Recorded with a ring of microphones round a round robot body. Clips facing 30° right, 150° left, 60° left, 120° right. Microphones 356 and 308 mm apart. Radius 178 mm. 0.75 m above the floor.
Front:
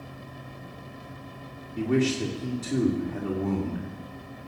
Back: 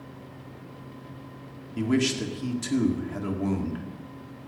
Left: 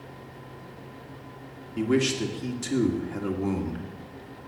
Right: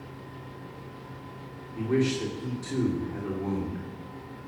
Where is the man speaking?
105° left, 1.9 m.